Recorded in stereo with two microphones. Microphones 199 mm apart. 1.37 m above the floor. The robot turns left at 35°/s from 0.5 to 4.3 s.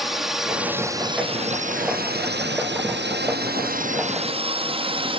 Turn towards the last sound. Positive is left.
turn(degrees=-25)  # may be behind; listen again after turning